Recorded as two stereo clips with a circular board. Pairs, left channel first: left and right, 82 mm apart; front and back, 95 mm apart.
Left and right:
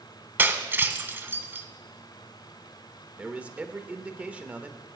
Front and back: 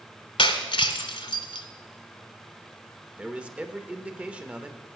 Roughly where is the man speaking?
Behind right.